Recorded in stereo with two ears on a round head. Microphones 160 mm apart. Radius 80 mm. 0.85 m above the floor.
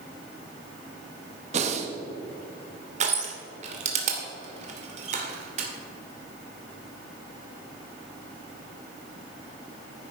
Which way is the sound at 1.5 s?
40° right (ahead or behind).